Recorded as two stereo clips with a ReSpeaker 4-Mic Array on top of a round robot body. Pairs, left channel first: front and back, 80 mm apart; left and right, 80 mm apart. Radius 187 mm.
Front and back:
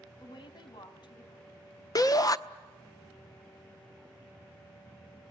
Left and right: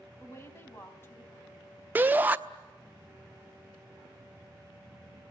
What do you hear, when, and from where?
0.2 s a woman speaking: 30° left, 4 m
1.9 s a shout: 25° right, 1.4 m